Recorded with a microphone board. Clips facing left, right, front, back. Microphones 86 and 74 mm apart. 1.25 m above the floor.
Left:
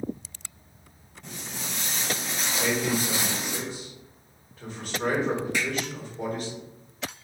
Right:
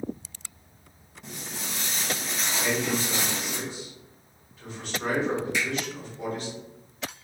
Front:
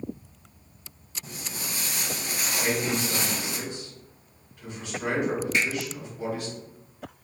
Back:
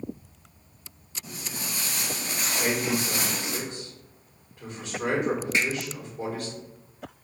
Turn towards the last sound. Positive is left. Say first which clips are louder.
# even, even
turn(degrees=125)